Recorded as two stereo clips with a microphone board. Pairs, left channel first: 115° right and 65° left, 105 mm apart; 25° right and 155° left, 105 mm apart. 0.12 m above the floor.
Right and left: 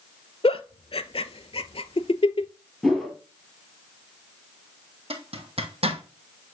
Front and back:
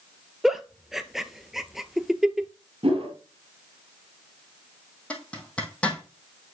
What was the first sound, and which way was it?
A giggle, 115° right.